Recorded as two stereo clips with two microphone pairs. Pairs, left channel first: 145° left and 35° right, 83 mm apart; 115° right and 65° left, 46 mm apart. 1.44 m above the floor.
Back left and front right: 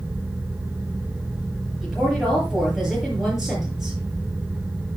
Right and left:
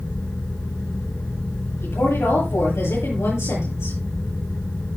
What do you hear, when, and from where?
1.8 s a woman speaking: 120° right, 8 m